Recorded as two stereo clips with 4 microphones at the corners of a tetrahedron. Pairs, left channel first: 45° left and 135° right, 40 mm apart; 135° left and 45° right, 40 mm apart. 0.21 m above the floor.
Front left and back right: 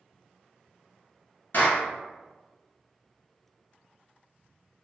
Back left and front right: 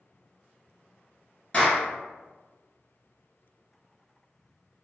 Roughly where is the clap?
Ahead left.